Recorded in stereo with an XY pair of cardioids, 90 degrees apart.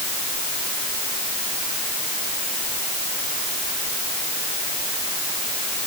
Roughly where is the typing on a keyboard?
No typing on a keyboard in this recording.